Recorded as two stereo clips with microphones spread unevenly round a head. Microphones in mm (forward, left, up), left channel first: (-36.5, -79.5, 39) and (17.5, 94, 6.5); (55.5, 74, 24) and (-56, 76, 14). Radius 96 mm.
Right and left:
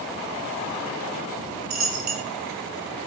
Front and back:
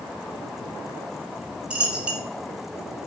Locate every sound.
1.7 s a dropped coin: 100° left, 1.4 m